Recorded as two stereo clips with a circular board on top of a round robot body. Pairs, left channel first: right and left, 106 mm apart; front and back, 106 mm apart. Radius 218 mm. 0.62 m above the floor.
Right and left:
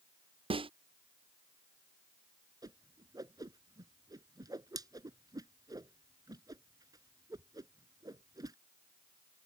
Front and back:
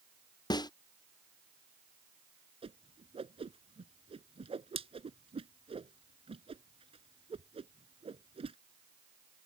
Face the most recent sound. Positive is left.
turn(degrees=145)